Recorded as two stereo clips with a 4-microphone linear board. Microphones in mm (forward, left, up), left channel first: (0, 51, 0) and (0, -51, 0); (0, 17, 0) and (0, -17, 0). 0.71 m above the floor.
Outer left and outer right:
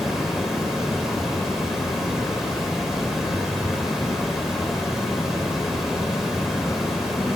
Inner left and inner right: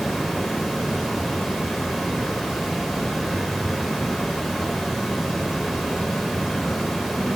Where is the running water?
5° right (ahead or behind), 0.9 m.